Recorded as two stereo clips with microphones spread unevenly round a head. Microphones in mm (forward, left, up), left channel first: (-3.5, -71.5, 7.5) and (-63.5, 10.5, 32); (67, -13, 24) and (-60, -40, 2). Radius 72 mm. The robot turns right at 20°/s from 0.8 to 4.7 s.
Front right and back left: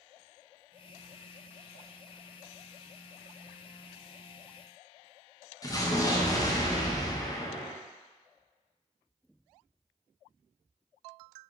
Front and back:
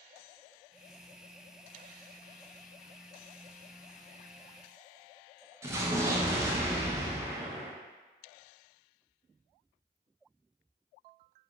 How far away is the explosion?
About 0.6 m.